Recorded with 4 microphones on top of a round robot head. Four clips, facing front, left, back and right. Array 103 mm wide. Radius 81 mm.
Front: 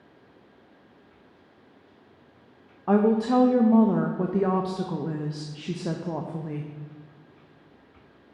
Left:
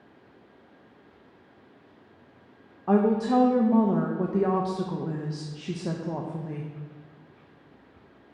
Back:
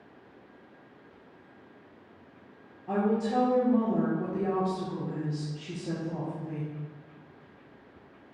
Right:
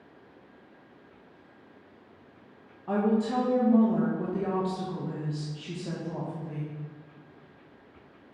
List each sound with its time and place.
2.9 s a woman speaking: 30° left, 0.6 m